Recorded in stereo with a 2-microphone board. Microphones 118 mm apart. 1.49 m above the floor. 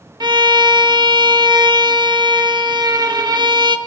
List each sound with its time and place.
0.2 s a violin: 40° right (ahead or behind), 0.9 m